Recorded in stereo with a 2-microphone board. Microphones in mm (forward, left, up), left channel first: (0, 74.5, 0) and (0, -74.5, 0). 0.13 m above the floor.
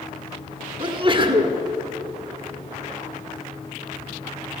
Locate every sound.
0.8 s a sneeze: 35° right (ahead or behind), 1.3 m